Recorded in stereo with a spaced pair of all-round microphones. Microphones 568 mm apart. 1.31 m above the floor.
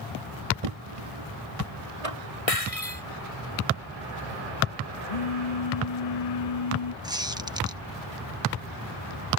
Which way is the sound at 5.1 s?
80° left.